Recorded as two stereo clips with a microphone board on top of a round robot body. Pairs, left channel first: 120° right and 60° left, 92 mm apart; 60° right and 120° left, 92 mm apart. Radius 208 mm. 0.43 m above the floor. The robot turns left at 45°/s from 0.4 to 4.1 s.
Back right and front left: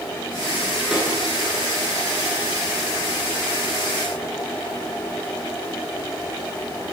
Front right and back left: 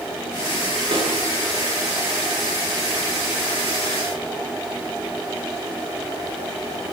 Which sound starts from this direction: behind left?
A snare drum, at 0.9 s.